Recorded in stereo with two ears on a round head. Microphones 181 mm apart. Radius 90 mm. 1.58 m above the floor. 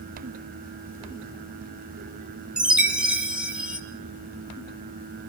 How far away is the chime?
About 3.5 m.